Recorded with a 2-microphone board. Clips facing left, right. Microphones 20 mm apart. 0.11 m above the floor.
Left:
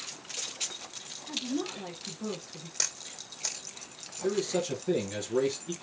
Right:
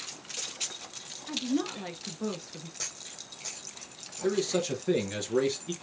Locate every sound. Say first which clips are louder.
1.3 s a woman speaking: right 3 dB; 40° right (ahead or behind), 1.4 m
2.8 s a camera shutter: left 6 dB; 55° left (ahead or behind), 1.6 m
4.2 s a man speaking: right 1 dB; 25° right (ahead or behind), 1.9 m